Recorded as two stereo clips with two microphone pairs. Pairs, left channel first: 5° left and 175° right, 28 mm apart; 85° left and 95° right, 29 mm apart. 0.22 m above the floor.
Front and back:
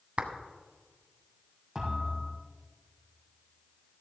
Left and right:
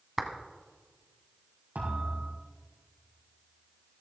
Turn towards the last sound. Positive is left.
turn(degrees=-110)